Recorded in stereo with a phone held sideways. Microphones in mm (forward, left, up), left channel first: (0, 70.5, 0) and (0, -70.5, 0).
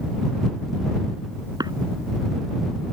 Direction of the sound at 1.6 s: 30° right (ahead or behind).